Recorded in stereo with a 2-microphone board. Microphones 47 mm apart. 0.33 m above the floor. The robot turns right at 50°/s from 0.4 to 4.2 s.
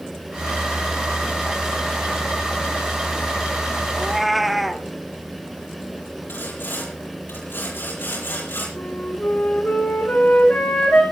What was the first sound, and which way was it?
A cat meowing, 15° right (ahead or behind).